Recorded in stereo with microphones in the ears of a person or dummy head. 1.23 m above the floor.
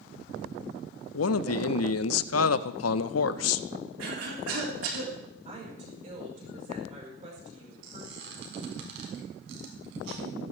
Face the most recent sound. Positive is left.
turn(degrees=-70)  # may be behind; listen again after turning